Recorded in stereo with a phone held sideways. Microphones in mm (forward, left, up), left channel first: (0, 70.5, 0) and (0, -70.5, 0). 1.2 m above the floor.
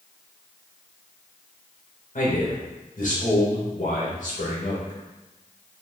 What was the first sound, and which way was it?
A man speaking, 65° left (ahead or behind).